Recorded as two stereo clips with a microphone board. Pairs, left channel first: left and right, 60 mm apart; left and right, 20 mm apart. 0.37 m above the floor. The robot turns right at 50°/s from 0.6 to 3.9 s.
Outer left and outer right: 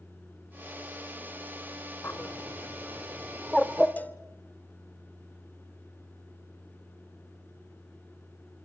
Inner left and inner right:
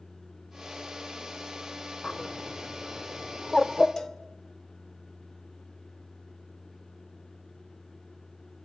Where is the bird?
40° left (ahead or behind), 1.1 m; by 3.9 s 5° right (ahead or behind), 1.1 m.